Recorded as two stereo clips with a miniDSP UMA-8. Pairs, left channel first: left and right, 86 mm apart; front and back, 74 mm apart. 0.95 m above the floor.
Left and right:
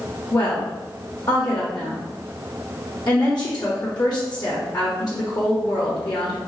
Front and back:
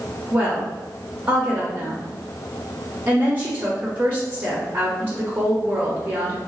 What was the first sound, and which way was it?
A woman speaking, 120° left.